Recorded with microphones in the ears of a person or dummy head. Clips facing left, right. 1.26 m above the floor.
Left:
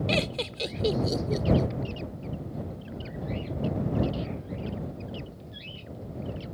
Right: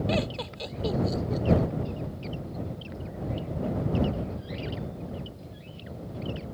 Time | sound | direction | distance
0.1 | laughter | 45° left (ahead or behind) | ?